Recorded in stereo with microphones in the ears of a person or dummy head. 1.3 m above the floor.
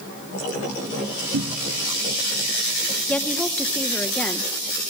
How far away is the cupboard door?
About 2.5 m.